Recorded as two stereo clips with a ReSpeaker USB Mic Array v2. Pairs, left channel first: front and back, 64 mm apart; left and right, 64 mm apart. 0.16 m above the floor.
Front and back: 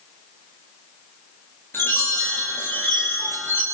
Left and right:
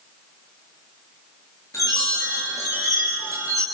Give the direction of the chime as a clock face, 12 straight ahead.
10 o'clock.